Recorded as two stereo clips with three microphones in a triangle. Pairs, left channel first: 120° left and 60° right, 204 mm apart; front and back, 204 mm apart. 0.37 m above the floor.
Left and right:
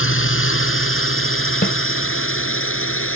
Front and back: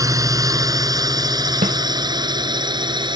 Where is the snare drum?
145° left.